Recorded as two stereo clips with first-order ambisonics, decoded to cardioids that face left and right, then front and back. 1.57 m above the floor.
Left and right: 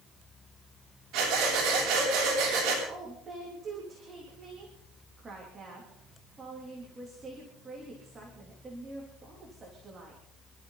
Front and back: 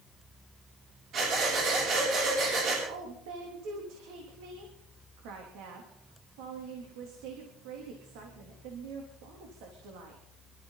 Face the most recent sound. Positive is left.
turn(degrees=-165)